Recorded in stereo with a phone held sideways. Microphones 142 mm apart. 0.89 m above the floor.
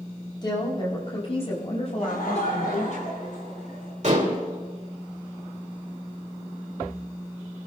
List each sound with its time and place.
0.4 s a woman speaking: 30° left (ahead or behind), 5 m; by 3.0 s 60° left (ahead or behind), 7 m
2.0 s laughter: 85° left, 7.5 m
4.0 s dishes clattering: 55° right (ahead or behind), 2.5 m